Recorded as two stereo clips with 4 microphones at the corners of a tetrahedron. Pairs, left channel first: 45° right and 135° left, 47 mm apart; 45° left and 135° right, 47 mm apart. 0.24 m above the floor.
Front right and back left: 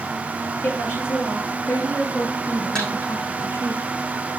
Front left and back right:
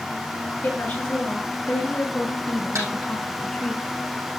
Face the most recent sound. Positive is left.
turn(degrees=-120)